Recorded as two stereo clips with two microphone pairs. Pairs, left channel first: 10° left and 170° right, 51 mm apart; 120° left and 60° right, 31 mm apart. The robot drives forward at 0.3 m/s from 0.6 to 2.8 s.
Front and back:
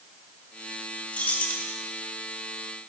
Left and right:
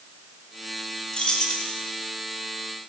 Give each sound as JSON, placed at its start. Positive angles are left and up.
{"t": 1.1, "sound": "keys jangling", "azimuth_deg": 70, "distance_m": 1.0}